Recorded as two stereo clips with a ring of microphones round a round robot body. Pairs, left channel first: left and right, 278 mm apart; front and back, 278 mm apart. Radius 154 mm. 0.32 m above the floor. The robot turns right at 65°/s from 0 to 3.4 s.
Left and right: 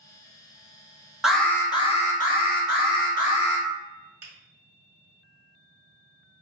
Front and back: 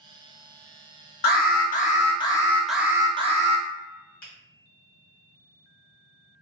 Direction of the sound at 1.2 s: 5° right.